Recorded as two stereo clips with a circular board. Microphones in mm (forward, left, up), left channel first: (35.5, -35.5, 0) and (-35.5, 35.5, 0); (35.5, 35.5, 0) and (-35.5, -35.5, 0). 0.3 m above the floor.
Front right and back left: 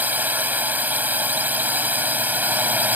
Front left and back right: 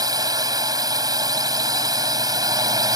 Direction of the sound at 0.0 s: 160° right.